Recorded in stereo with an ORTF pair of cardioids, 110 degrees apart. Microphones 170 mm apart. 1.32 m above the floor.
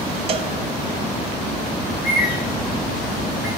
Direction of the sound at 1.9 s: 65° left.